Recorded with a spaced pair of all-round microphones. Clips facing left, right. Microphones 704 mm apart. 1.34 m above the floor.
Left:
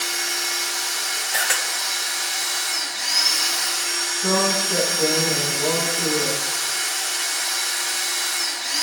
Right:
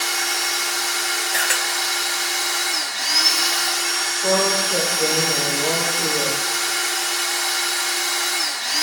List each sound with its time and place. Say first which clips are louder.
0.0 s a machine running: right 3 dB; 75° right (ahead or behind), 1.2 m
1.3 s a camera shutter: left 1 dB; 30° left (ahead or behind), 1.4 m
4.2 s a woman speaking: right 2 dB; 45° left (ahead or behind), 5.5 m